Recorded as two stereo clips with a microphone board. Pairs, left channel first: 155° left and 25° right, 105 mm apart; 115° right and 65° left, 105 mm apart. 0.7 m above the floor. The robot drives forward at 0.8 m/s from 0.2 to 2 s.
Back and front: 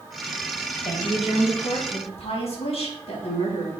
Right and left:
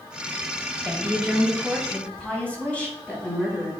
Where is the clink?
I don't hear a clink.